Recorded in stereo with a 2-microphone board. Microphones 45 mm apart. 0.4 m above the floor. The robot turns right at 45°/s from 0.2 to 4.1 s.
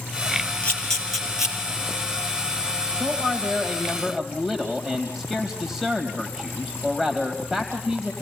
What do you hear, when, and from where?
0.6 s a camera shutter: 25° left (ahead or behind), 5 m; by 1.6 s 15° right (ahead or behind), 5 m
2.9 s a man speaking: 60° right, 2.5 m; by 8.1 s 10° right, 2.5 m